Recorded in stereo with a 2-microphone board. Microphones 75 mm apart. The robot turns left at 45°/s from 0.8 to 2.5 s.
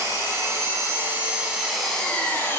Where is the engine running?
135° right, 0.9 m; by 2.6 s 150° left, 0.9 m.